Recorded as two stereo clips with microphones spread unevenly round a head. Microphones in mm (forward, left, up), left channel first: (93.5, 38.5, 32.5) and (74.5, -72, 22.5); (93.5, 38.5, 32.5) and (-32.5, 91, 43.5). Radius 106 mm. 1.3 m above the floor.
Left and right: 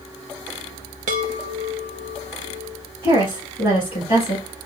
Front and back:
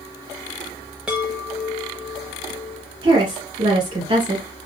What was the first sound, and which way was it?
A chime, 120° right.